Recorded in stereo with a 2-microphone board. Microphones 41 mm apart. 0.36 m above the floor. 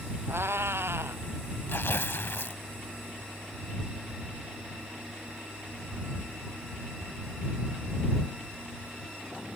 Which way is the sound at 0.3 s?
80° right.